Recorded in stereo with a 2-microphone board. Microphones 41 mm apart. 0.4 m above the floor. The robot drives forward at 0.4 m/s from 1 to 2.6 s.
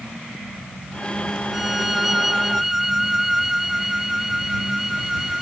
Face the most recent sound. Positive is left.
turn(degrees=-5)  # may be behind; listen again after turning